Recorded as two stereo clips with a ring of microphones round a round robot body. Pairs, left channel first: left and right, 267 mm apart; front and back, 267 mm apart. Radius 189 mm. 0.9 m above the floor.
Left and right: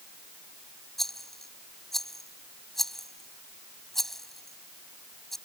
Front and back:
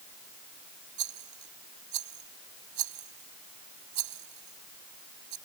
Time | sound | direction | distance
1.0 | a rattle | straight behind | ?